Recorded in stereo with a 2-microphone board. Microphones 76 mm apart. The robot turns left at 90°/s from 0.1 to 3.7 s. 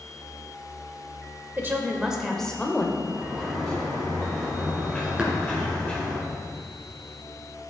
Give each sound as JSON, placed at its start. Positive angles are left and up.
{"t": 1.6, "sound": "a woman speaking", "azimuth_deg": -115, "distance_m": 1.0}
{"t": 3.1, "sound": "a sliding door", "azimuth_deg": -135, "distance_m": 3.0}
{"t": 5.2, "sound": "tapping", "side_deg": -15, "distance_m": 2.0}